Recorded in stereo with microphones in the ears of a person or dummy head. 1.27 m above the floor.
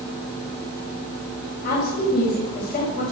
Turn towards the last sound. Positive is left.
turn(degrees=45)  # may be behind; listen again after turning